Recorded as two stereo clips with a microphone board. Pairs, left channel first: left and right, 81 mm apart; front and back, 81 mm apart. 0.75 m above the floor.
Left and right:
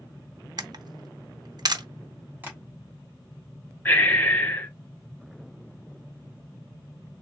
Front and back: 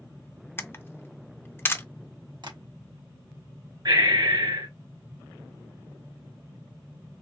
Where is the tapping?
155° right, 1.4 m.